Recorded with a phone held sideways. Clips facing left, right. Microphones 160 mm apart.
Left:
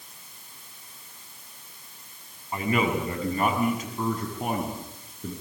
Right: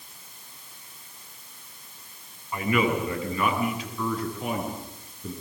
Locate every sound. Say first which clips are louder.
2.5 s a man speaking: right 1 dB; 30° left (ahead or behind), 7.5 m; by 5.3 s 60° left (ahead or behind), 8.5 m